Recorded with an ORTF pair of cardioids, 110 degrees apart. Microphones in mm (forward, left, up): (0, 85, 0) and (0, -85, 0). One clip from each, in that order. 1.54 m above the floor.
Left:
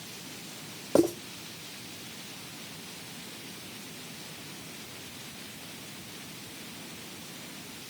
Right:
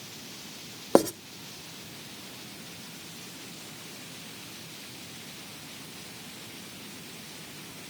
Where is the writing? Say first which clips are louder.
Right 2 dB; 60° right, 2 m.